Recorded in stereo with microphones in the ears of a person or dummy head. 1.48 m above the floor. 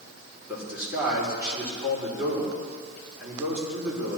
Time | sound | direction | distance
0.5 | a man speaking | 10° right (ahead or behind) | 4 m